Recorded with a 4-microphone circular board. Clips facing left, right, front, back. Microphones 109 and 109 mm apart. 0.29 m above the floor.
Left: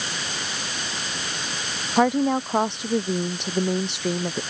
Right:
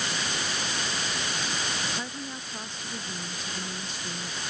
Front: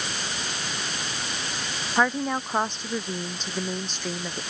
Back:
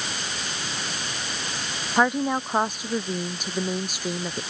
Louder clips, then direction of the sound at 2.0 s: Left 18 dB, back 2 dB; 100° left.